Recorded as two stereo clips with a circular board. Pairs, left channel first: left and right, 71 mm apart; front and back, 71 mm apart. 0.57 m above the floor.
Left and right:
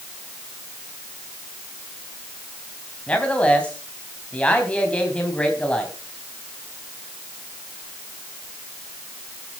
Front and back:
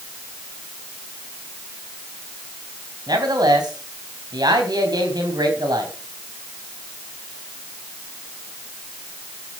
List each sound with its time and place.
3.1 s a man speaking: 160° left, 3.5 m